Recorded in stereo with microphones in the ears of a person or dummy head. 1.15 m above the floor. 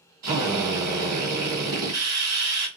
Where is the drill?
25° right (ahead or behind), 1.4 m.